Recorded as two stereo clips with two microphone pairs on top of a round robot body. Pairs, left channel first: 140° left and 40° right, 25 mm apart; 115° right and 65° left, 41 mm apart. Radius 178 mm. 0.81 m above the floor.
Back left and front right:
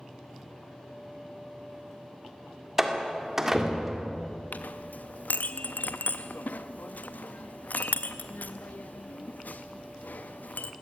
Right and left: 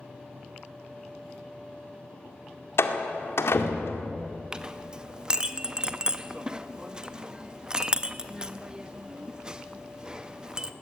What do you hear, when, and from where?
2.8 s a door slam: 115° right, 2 m
4.5 s a clink: 135° left, 0.6 m